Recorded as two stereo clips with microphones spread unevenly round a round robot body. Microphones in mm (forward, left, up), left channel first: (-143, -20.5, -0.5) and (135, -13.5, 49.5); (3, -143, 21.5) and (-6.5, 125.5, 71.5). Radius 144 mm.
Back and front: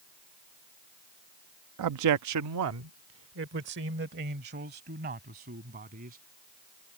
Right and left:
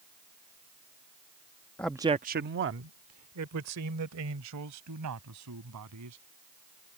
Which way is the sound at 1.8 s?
15° right.